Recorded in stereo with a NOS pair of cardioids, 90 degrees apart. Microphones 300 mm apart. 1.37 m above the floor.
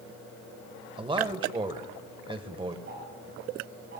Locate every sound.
1.0 s a man speaking: 15° right, 1.3 m
2.9 s ticking: 40° right, 5.5 m